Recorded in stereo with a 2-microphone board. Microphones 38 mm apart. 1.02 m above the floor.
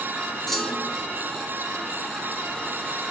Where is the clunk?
10° left (ahead or behind), 3.5 m.